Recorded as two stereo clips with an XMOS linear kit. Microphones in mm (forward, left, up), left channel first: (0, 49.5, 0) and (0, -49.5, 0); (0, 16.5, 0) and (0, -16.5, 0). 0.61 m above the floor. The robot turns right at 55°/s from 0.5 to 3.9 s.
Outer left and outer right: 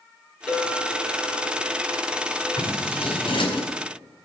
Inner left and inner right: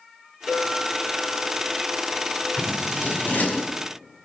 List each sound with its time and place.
0.5 s a clink: straight ahead, 5.5 m; by 2.5 s 110° left, 5.5 m
2.6 s scissors: 65° left (ahead or behind), 5 m; by 3.7 s 50° left (ahead or behind), 5 m